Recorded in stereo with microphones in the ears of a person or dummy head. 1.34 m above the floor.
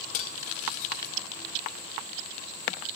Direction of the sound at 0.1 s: 35° left (ahead or behind).